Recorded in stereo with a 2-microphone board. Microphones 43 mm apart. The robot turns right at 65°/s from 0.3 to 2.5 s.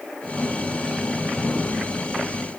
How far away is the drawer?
No drawer in this recording.